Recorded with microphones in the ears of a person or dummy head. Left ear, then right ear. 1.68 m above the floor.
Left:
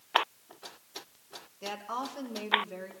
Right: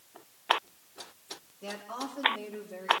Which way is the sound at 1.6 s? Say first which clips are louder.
Left 3 dB; 80° left.